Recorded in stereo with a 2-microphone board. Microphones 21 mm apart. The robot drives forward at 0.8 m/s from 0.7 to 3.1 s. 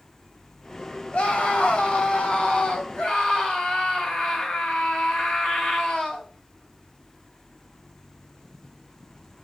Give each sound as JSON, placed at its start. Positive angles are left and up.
{"t": 1.1, "sound": "a scream", "side_deg": 70, "distance_m": 2.5}